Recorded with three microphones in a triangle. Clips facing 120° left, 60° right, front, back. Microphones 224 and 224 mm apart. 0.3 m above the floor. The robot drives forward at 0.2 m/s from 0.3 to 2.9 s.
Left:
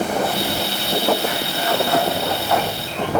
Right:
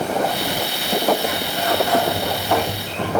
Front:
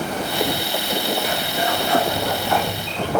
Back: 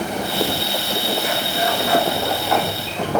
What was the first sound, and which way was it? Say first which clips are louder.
A sliding door: even, back 1 dB; 125° right.